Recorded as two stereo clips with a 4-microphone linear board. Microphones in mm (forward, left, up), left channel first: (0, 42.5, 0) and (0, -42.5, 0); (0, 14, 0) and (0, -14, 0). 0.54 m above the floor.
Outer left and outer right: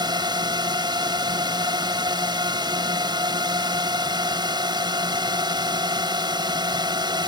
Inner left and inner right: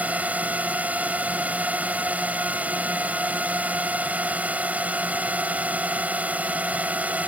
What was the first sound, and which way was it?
A drone, 60° right (ahead or behind).